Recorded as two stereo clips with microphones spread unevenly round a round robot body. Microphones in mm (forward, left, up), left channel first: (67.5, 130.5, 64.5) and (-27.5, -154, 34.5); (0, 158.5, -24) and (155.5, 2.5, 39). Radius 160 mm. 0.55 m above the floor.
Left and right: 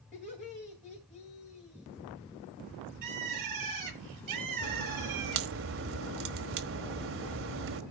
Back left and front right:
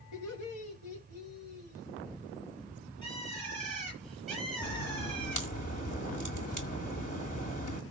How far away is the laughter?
About 3.5 m.